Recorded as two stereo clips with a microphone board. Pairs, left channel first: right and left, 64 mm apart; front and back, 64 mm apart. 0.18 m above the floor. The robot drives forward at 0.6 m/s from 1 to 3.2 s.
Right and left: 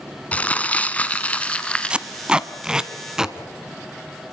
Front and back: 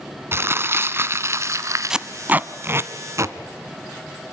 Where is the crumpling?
150° right, 1.3 m; by 2.0 s 160° right, 1.7 m.